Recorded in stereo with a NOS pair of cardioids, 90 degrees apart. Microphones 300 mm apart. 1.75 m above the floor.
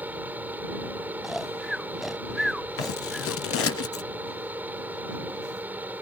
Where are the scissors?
55° left.